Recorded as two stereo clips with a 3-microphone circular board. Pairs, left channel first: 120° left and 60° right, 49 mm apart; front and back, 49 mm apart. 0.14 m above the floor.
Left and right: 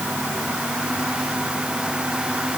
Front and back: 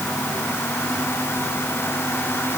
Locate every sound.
Only background noise.